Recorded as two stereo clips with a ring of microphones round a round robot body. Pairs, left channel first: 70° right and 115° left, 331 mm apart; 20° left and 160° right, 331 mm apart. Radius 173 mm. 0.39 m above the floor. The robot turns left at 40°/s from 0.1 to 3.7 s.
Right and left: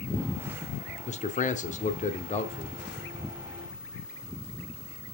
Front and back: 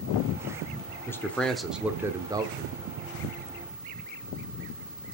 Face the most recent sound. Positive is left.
turn(degrees=-150)